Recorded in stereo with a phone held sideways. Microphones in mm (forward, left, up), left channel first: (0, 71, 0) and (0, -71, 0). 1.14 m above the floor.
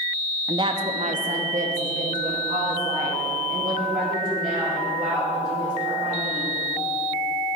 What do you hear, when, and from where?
0.5 s a woman speaking: 25° right (ahead or behind), 0.5 m; by 6.5 s 75° right (ahead or behind), 5 m